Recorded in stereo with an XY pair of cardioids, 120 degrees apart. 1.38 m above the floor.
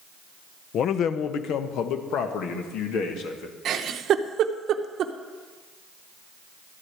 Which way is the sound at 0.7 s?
60° left.